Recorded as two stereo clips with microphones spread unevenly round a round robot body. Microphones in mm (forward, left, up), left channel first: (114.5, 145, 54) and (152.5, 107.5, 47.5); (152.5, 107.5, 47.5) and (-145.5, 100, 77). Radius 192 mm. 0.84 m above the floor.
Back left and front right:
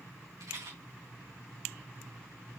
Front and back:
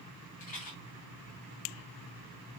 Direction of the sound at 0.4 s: 70° right.